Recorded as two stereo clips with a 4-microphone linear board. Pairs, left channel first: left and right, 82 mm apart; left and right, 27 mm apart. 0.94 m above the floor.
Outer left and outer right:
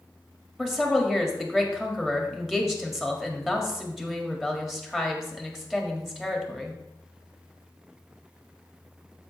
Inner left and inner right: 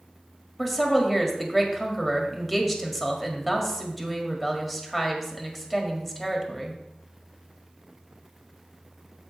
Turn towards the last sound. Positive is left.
turn(degrees=-5)  # may be behind; listen again after turning